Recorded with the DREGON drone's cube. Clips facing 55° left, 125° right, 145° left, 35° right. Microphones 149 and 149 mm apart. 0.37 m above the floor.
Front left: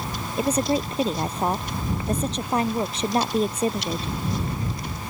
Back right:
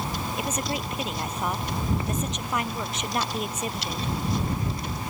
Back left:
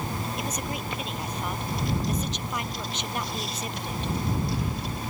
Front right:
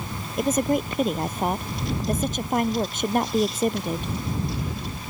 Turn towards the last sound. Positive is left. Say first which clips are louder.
# front left 10 dB, front right 10 dB
turn(degrees=0)